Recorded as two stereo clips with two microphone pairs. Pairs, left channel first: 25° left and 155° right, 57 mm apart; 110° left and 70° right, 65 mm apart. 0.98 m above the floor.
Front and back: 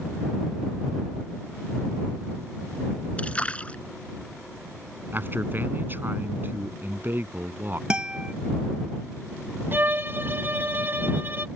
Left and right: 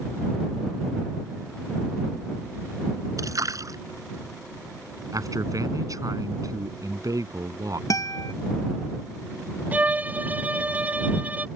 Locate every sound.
3.2 s a splash: 40° right
5.1 s a man speaking: 105° right
7.9 s a guitar: 130° left
9.7 s a violin: 125° right